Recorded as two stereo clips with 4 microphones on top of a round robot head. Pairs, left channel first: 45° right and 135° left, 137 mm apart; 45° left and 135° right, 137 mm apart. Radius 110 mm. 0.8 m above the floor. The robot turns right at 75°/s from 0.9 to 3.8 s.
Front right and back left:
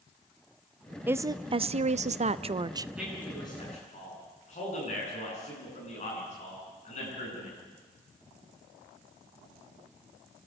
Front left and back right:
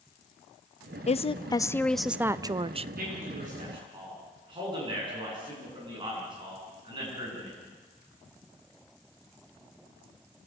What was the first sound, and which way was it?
A woman speaking, 65° left.